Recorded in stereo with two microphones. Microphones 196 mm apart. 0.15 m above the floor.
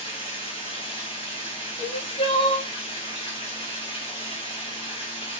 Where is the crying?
30° left (ahead or behind), 2.5 m.